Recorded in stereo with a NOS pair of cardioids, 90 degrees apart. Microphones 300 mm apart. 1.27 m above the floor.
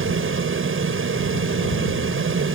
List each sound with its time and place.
0.0 s a fan: 45° right